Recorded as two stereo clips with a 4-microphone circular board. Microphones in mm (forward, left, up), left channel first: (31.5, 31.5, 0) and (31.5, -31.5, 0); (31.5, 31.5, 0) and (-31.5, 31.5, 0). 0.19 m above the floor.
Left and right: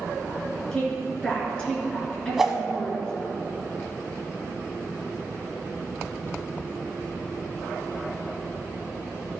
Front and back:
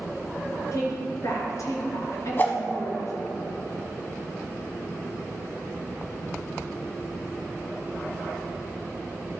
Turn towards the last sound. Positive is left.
turn(degrees=-10)